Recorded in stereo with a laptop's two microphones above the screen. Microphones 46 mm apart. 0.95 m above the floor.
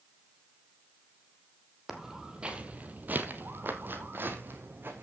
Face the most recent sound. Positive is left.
turn(degrees=-45)  # may be behind; listen again after turning